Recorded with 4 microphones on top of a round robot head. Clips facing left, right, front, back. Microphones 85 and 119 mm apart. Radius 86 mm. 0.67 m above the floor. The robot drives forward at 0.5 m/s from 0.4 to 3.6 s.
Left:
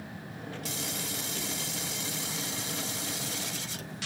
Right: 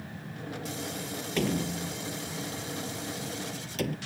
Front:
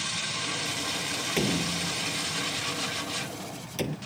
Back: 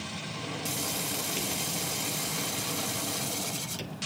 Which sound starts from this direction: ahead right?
A door slam, at 1.4 s.